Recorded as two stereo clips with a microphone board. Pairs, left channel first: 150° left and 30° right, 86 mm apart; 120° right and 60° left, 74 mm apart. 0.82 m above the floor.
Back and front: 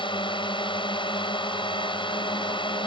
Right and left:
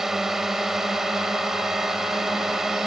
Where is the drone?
145° left.